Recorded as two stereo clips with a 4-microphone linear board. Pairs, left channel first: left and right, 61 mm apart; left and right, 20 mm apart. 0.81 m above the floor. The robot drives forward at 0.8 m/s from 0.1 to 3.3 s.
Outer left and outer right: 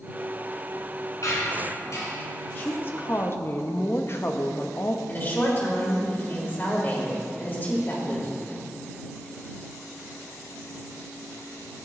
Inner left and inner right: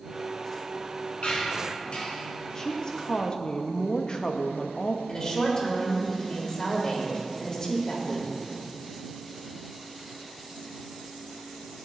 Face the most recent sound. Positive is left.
turn(degrees=35)  # may be behind; listen again after turning